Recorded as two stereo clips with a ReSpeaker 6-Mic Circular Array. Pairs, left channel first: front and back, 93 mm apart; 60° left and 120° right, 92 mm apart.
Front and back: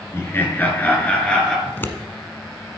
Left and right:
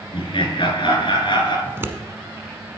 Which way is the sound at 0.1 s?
60° left.